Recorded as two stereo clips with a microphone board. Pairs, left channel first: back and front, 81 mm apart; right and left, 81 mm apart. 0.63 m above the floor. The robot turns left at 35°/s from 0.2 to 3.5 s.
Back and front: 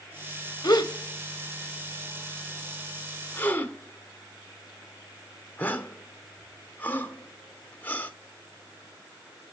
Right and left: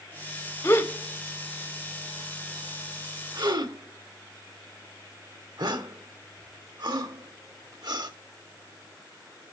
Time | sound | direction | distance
0.6 | a gasp | 145° right | 1.3 m